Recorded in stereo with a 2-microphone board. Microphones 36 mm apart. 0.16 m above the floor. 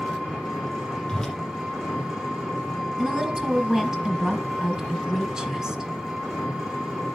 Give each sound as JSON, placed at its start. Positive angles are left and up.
{"t": 0.0, "sound": "an engine running", "side_deg": -5, "distance_m": 4.0}
{"t": 1.1, "sound": "a whoosh", "side_deg": 15, "distance_m": 4.0}
{"t": 3.0, "sound": "a woman speaking", "side_deg": -15, "distance_m": 1.7}